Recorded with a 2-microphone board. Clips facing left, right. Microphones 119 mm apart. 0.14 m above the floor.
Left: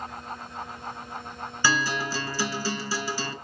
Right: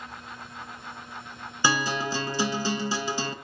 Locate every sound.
1.6 s a guitar: 20° right (ahead or behind), 0.5 m